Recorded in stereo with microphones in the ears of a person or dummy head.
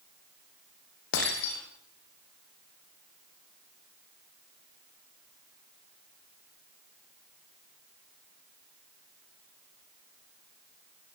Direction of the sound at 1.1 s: 65° left (ahead or behind).